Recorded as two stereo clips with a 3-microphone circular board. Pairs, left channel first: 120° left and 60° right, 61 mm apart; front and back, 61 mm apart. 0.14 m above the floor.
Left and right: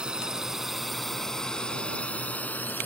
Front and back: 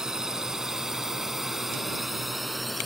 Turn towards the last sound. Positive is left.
turn(degrees=90)